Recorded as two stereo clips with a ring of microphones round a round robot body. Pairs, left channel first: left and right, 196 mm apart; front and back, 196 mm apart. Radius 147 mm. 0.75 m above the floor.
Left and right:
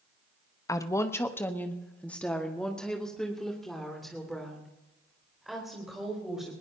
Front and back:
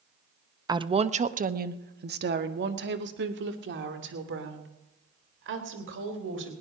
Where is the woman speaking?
140° left, 0.8 m; by 6.5 s straight behind, 4 m.